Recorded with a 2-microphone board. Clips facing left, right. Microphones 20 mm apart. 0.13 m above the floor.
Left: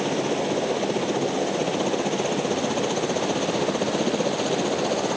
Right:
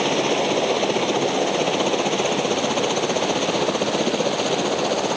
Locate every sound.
0.0 s a helicopter: 35° right (ahead or behind); by 5.2 s 20° right (ahead or behind)